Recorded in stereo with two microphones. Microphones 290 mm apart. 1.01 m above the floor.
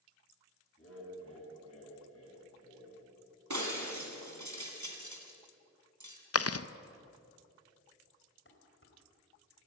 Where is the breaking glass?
75° right (ahead or behind), 2.5 m.